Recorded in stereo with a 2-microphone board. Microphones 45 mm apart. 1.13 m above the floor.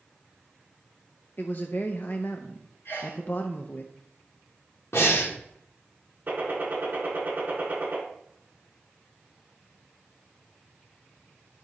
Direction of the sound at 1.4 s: 45° left (ahead or behind).